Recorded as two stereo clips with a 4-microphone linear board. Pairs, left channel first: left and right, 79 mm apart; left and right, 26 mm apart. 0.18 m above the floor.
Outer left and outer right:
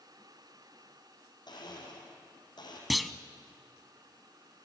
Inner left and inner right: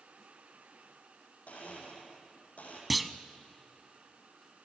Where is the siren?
No siren in this recording.